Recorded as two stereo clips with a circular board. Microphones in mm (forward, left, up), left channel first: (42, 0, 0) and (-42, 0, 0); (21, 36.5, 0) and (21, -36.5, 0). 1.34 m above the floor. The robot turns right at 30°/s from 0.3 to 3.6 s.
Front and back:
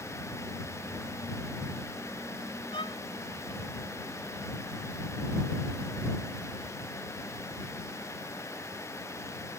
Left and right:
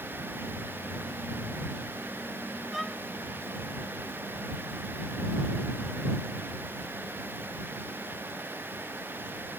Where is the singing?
No singing in this recording.